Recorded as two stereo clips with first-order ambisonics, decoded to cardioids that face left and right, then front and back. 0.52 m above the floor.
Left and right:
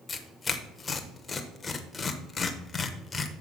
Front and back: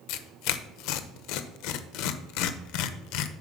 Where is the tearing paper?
15° left, 0.8 m.